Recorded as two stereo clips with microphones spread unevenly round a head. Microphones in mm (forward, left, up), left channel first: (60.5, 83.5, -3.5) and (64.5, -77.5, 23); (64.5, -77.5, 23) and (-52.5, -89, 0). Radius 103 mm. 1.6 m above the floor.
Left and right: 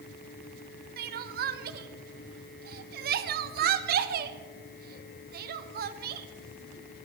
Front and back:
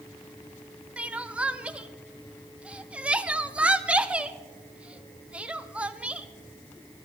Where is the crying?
90° right, 0.6 m.